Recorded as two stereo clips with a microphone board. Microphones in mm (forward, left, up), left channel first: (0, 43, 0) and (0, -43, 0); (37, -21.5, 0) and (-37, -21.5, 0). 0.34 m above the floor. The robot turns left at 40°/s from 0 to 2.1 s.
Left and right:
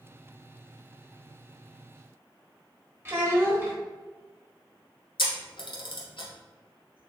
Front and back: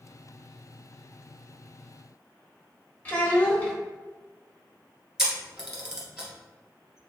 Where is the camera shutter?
95° left, 1.3 m.